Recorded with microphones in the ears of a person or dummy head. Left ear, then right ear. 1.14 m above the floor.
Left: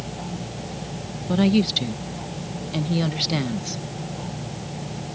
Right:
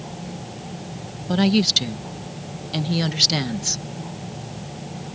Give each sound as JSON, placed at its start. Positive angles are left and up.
{"t": 1.3, "sound": "a woman speaking", "side_deg": -25}